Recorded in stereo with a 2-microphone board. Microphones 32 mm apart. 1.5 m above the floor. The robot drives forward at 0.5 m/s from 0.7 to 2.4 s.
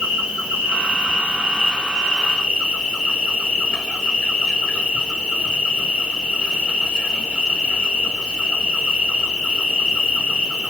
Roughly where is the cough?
No cough in this recording.